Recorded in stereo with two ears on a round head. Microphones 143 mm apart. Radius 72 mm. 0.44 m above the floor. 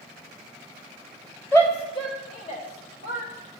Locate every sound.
1.5 s a shout: 15° left (ahead or behind), 1.9 m; by 3.3 s 60° left (ahead or behind), 3 m